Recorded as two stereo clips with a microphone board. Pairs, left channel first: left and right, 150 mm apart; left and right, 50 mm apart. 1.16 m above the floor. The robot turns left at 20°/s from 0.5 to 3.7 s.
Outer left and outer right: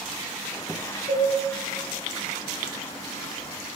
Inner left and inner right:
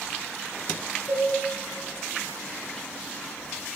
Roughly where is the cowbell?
Right.